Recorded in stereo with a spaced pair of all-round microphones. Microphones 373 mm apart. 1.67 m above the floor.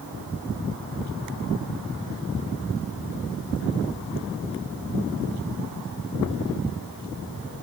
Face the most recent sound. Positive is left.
No sound to turn to.